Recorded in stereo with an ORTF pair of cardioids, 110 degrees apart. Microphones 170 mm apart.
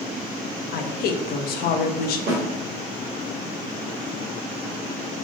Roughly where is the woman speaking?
Left.